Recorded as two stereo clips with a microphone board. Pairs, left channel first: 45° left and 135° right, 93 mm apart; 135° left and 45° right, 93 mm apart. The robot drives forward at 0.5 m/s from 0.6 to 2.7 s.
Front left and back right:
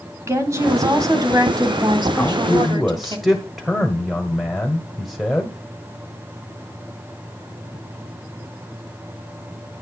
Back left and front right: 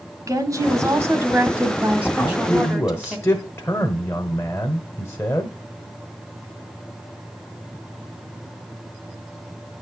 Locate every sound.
0.3 s a woman speaking: 85° right, 1.8 m; by 3.2 s 125° right, 2.0 m
2.2 s a man speaking: 115° left, 1.3 m; by 5.5 s 140° left, 1.3 m